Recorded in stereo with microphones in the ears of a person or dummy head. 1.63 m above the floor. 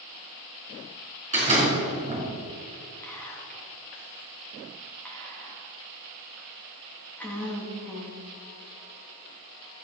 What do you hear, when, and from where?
1.3 s a door slam: 40° right (ahead or behind), 3.5 m
3.0 s whispering: 10° left (ahead or behind), 3 m